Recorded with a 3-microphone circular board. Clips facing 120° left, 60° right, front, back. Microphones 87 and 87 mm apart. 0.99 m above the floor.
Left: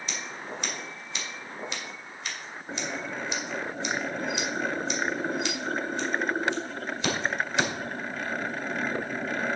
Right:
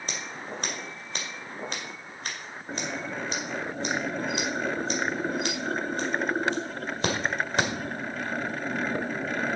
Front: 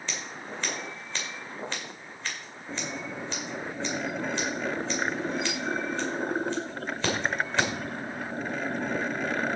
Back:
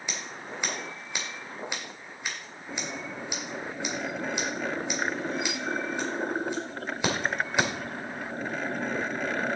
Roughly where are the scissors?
Right.